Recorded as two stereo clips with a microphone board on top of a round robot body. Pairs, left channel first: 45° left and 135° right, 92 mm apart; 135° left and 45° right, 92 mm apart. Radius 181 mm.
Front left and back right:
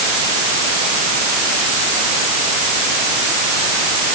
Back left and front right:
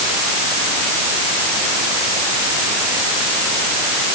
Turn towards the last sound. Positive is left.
No sound to turn to.